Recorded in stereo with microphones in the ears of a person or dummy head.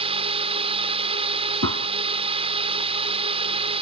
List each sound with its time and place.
0.0 s a drone: 30° right (ahead or behind)
1.6 s a gunshot: 80° right